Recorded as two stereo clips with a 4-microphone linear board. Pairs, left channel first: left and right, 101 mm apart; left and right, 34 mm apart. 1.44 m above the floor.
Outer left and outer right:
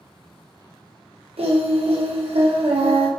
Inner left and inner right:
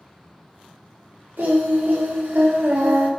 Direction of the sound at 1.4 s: 80° right.